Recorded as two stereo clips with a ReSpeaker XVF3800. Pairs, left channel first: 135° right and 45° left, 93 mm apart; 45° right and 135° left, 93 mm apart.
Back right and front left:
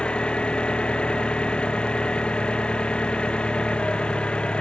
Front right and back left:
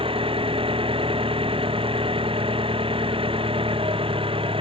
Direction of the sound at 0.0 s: 145° left.